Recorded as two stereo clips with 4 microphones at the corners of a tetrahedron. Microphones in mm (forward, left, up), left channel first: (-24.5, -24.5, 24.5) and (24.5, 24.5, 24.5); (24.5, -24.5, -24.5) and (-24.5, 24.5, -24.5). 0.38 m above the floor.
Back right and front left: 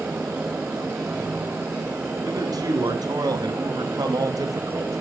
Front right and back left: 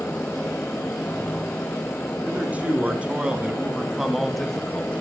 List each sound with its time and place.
2.2 s a man speaking: 65° left, 4 m; by 5.0 s 20° left, 1.8 m